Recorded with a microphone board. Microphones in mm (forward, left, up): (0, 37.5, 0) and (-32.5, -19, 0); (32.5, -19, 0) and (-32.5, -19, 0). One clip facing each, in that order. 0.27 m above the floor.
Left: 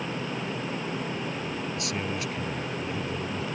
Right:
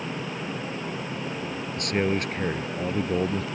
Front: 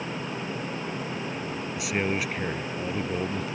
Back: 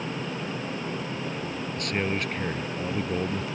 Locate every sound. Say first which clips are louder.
1.8 s a man speaking: right 6 dB, front 1 dB; 85° right; by 3.4 s 95° right